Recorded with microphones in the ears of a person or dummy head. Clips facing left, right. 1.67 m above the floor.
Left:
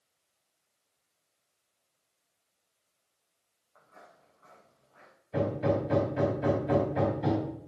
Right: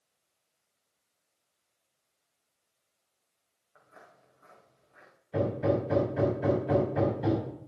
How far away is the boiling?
I don't hear boiling.